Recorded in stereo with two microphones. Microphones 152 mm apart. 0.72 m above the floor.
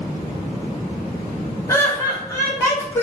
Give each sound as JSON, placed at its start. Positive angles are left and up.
{"t": 1.7, "sound": "laughter", "side_deg": 20, "distance_m": 1.0}